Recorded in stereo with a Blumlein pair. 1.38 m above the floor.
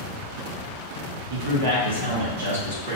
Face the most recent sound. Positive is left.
turn(degrees=-70)